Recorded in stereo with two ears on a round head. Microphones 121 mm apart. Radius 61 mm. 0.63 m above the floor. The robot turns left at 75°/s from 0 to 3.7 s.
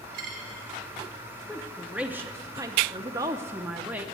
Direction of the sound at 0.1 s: 75° right (ahead or behind).